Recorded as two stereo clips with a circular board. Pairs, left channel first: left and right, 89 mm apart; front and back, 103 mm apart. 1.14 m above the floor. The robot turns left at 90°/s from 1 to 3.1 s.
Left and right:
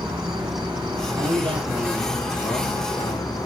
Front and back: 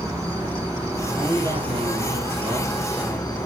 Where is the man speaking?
100° right, 3 m; by 3.5 s 80° left, 3 m.